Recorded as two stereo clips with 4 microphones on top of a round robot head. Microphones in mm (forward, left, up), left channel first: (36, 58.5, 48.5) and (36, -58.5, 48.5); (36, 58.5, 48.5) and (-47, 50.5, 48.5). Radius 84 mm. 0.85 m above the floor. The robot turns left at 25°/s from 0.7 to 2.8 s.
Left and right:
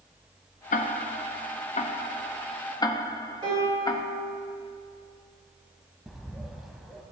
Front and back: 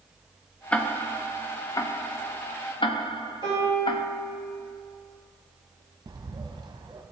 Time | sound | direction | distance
0.7 | ticking | 85° left | 0.7 m
3.4 | a piano | 40° right | 3 m
6.1 | a bird | straight behind | 0.9 m